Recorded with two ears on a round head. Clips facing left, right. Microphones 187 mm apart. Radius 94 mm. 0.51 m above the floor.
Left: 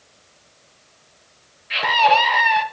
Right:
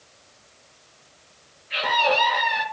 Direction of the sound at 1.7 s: 80° left.